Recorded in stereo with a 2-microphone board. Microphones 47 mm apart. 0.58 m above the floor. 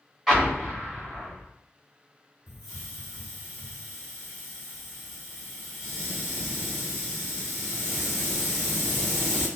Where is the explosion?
5° left (ahead or behind), 1.4 m.